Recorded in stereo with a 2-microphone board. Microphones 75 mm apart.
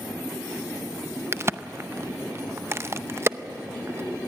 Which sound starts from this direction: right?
A crack, at 1.3 s.